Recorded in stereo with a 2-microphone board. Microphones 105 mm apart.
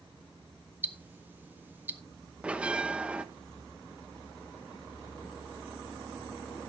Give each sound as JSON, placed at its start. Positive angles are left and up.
{"t": 0.8, "sound": "ticking", "side_deg": -15, "distance_m": 0.8}
{"t": 2.4, "sound": "a bell", "side_deg": -10, "distance_m": 0.8}